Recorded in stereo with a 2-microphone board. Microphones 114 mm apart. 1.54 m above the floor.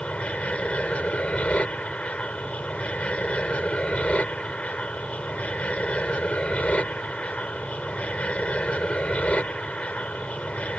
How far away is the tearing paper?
I don't hear tearing paper.